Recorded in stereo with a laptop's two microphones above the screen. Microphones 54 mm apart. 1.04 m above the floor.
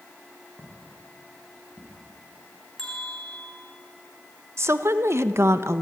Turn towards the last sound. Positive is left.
turn(degrees=-60)  # may be behind; listen again after turning